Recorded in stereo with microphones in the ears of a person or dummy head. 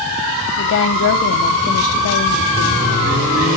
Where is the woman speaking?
65° left (ahead or behind), 0.7 m.